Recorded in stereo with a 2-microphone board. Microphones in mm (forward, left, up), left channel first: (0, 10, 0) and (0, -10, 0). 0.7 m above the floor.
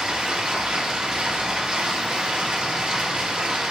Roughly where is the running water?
Right.